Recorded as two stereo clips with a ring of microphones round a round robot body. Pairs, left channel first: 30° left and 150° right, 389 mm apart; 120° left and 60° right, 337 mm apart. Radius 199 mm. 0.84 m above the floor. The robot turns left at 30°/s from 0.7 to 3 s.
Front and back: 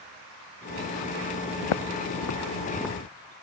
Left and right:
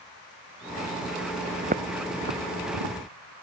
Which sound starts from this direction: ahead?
Footsteps, at 1.6 s.